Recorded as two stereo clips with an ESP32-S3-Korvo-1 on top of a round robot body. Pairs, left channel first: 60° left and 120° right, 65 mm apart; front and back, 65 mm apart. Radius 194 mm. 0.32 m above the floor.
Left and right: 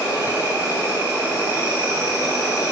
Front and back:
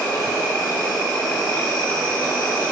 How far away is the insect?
About 2.5 m.